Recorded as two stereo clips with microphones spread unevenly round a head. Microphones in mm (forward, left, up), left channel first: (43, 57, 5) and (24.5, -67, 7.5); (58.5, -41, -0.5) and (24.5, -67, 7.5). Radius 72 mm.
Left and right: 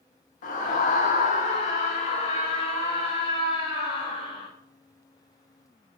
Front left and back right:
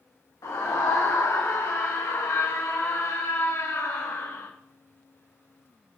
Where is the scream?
60° left, 1.8 m; by 4.5 s 35° left, 4 m.